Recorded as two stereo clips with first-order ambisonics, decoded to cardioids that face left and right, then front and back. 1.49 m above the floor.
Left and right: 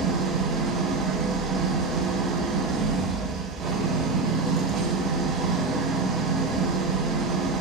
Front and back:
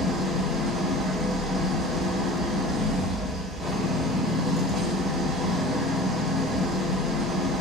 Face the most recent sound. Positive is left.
turn(degrees=-90)